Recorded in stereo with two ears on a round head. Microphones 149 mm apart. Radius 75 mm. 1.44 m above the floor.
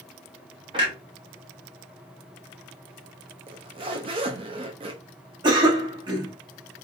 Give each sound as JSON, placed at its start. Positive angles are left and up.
{"t": 0.7, "sound": "a clunk", "side_deg": -30, "distance_m": 0.9}
{"t": 3.5, "sound": "a zipper", "side_deg": -30, "distance_m": 0.5}
{"t": 5.4, "sound": "a cough", "side_deg": -25, "distance_m": 1.0}